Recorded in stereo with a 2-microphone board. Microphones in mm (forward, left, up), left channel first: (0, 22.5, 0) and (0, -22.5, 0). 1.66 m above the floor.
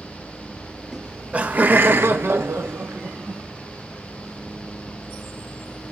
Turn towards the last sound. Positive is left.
turn(degrees=-80)